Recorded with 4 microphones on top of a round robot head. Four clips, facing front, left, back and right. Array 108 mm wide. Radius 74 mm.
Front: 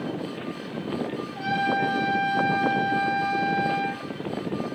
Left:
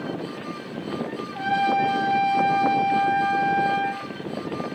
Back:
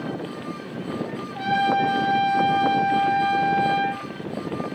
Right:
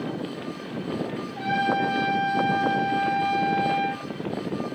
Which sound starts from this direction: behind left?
A trumpet, at 1.4 s.